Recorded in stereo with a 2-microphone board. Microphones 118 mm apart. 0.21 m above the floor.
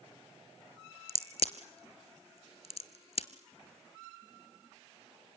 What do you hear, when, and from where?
1.1 s a crack: 65° left (ahead or behind), 1.0 m